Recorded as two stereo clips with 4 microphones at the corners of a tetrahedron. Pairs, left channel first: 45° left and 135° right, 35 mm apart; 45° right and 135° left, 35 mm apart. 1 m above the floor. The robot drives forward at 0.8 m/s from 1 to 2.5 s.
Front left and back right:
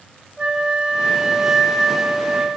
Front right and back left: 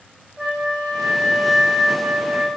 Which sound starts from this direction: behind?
A flute, at 0.4 s.